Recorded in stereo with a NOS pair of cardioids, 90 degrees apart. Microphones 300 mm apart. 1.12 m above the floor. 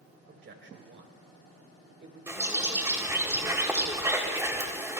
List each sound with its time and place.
0.3 s a man speaking: 40° right, 3.5 m
2.3 s a bird: 10° right, 3 m